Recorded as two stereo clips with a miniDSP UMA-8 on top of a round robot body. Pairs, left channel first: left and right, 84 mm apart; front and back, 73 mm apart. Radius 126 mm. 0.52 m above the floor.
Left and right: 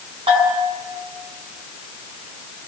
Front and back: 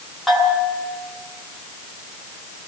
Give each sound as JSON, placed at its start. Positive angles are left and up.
{"t": 0.3, "sound": "a bell", "azimuth_deg": -90, "distance_m": 8.0}